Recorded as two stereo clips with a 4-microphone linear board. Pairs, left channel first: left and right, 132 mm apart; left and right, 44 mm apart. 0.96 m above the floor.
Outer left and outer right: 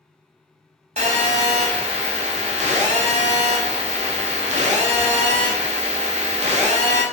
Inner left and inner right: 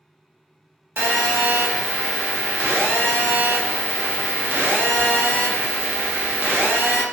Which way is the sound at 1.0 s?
60° right (ahead or behind).